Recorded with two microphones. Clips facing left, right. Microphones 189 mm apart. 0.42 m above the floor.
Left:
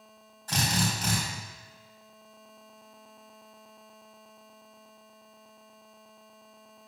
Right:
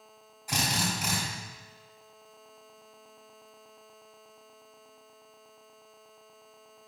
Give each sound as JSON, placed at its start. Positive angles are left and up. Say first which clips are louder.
{"t": 0.5, "sound": "a drill", "louder": "left 2 dB", "side_deg": -10, "distance_m": 3.0}